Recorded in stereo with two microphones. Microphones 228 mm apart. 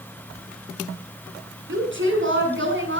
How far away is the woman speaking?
About 7.5 m.